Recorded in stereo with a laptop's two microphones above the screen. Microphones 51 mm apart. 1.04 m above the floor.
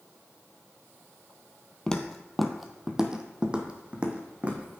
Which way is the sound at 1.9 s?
15° left (ahead or behind).